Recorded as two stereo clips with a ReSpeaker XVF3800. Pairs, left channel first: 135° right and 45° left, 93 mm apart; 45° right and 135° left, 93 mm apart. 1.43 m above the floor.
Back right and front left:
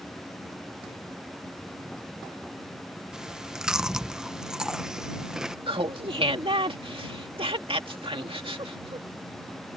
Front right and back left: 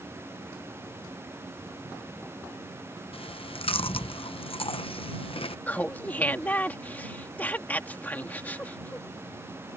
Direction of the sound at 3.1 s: 40° right.